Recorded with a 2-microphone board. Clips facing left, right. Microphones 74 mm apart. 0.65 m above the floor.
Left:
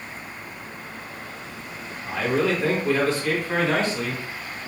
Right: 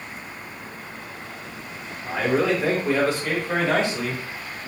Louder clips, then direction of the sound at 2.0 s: Right 1 dB; 15° right (ahead or behind).